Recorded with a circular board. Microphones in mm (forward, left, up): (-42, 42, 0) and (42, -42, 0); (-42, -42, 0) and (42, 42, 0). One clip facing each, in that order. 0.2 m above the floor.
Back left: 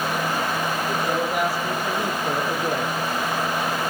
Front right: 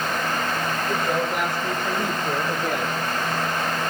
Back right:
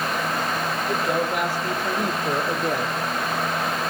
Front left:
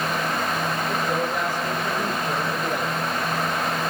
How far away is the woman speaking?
About 7 m.